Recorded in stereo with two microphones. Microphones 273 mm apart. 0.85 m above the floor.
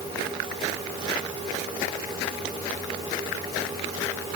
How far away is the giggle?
No giggle in this recording.